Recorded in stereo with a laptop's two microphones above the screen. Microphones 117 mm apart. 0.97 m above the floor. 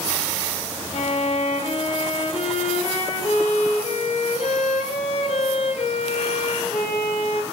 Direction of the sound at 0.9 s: 65° left (ahead or behind).